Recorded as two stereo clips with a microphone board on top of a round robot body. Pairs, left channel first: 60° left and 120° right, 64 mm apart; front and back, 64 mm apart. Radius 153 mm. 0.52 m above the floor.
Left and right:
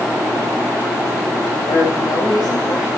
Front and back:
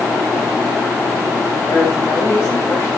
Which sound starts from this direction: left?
A woman speaking, at 1.7 s.